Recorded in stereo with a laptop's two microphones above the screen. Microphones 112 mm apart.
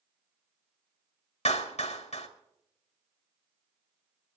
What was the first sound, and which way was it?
A clap, 80° left.